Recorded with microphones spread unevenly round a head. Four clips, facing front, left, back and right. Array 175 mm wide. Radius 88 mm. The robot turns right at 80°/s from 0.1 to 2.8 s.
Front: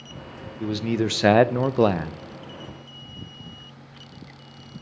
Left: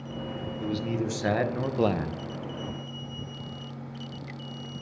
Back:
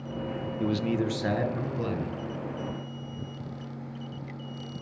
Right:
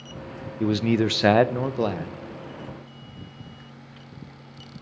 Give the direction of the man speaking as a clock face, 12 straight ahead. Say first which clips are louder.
Right 9 dB, front 3 dB; 3 o'clock.